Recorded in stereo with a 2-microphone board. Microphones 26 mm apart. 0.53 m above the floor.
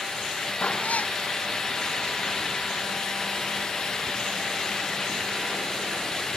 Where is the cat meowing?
65° left (ahead or behind).